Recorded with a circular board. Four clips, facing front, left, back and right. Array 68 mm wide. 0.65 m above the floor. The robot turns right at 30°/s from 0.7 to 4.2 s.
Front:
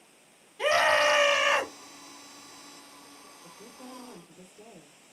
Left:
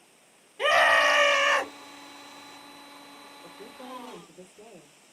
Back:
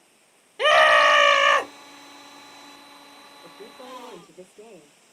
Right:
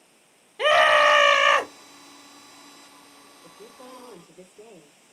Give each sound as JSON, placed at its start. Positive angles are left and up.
{"t": 0.6, "sound": "a scream", "azimuth_deg": -155, "distance_m": 0.8}
{"t": 3.4, "sound": "a woman speaking", "azimuth_deg": 155, "distance_m": 1.6}